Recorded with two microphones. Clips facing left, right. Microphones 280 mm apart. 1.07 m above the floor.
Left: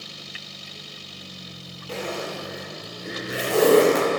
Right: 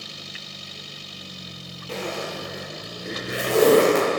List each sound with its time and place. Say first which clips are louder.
1.9 s a zipper: even; centre (ahead or behind), 2.5 m